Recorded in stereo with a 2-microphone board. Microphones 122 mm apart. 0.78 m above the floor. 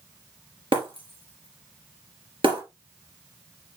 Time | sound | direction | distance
0.7 | breaking glass | 50° right (ahead or behind) | 3 m